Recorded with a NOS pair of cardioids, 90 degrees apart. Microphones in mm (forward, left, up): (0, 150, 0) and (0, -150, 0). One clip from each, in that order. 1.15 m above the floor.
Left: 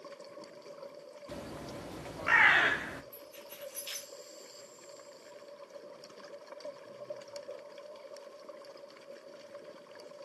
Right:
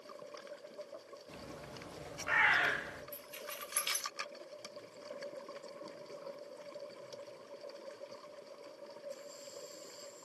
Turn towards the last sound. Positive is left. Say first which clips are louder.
# right 3 dB
turn(degrees=-55)